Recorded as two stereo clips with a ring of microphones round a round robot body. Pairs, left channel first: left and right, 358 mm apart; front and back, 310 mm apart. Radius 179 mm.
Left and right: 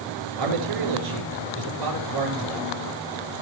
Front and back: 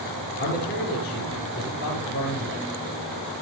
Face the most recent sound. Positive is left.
turn(degrees=-65)